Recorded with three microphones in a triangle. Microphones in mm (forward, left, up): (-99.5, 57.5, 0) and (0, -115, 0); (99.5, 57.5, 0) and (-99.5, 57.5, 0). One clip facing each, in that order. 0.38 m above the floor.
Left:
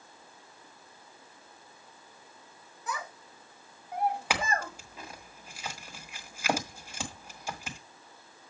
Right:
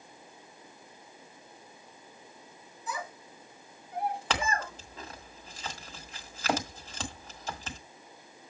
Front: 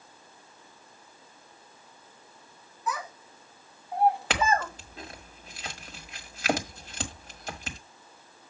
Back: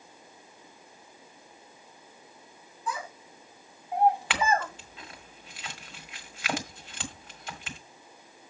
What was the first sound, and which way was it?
A child speaking, 120° left.